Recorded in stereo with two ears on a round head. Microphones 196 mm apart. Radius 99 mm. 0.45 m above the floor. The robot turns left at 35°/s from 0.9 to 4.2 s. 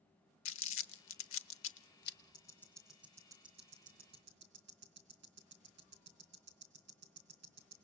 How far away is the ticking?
About 4 m.